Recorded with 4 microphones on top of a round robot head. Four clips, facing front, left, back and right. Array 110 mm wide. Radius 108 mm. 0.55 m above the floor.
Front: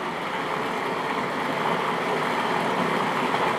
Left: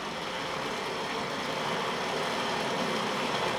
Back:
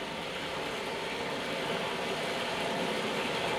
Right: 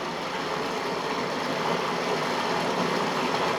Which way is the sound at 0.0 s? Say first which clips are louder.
Right 5 dB, front 9 dB; 20° right.